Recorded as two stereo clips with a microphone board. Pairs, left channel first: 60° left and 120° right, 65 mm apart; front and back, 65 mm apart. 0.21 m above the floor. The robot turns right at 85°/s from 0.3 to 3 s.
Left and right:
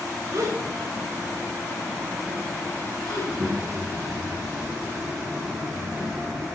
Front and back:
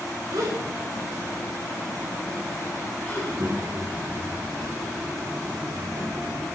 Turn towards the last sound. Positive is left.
turn(degrees=-165)